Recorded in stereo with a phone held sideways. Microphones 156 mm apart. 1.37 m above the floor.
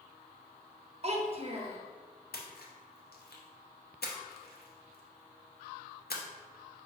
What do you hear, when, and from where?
1.0 s a child speaking: 40° right (ahead or behind), 0.7 m
2.3 s a splash: 85° left, 0.7 m